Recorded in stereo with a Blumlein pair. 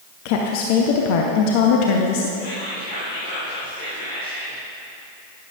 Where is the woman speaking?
45° left, 0.8 m.